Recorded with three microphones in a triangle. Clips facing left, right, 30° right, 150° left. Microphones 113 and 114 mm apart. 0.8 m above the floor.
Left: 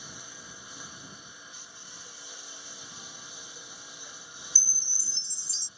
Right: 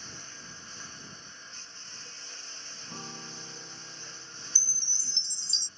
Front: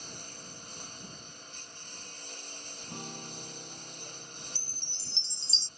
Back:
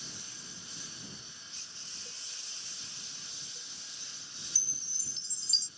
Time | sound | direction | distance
0.0 | a lawn mower | 10° left | ?
2.9 | a guitar | 40° right | ?
4.5 | a chime | 50° right | ?